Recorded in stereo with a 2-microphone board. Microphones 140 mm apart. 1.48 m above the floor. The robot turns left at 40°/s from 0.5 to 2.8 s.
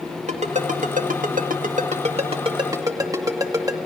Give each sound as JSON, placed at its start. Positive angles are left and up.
{"t": 0.3, "sound": "a ringtone", "side_deg": -60, "distance_m": 1.8}